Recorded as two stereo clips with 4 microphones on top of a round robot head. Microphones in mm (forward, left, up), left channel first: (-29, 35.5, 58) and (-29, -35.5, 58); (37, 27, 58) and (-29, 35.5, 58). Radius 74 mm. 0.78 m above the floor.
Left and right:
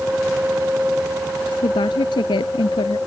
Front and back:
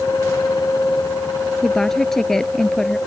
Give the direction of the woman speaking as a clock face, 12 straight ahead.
9 o'clock.